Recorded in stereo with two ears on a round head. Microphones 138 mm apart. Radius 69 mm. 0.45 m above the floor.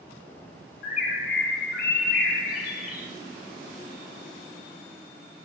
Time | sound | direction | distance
0.8 | a bird | 60° left (ahead or behind) | 1.0 m